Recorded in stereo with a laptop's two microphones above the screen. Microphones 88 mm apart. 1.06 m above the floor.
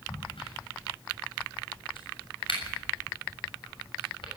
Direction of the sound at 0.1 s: 80° left.